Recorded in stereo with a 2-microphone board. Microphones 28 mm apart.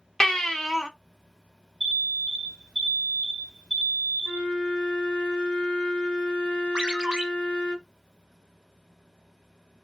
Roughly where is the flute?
Left.